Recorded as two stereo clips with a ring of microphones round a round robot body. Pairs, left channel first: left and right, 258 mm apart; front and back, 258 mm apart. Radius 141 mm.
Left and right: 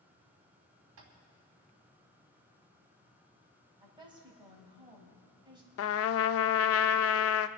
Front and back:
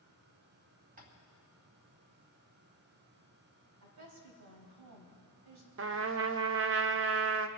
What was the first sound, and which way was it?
Tapping, 120° right.